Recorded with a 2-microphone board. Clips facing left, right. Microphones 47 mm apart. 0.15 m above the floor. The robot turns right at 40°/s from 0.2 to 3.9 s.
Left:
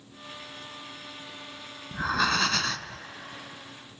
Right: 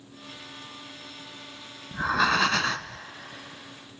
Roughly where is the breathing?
Behind.